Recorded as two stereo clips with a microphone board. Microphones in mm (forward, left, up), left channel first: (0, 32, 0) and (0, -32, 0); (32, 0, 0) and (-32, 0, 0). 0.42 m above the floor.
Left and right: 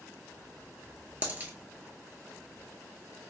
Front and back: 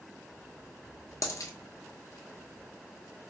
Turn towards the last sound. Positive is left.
turn(degrees=-30)